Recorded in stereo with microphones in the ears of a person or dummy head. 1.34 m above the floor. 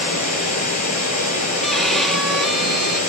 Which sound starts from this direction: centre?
A violin, at 1.6 s.